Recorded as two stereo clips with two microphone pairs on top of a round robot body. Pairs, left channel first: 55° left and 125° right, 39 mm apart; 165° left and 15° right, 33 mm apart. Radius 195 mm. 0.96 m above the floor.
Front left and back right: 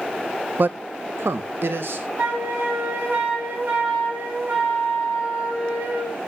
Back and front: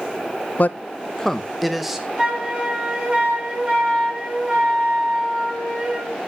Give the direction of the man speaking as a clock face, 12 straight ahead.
6 o'clock.